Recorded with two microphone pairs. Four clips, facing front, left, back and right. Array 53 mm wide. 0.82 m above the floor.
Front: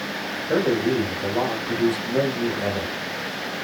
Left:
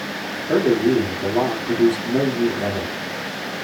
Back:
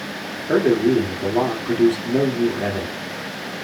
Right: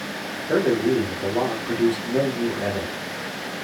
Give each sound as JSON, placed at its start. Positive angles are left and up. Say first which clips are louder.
{"t": 0.5, "sound": "a man speaking", "louder": "left 3 dB, back 5 dB", "azimuth_deg": 170, "distance_m": 1.5}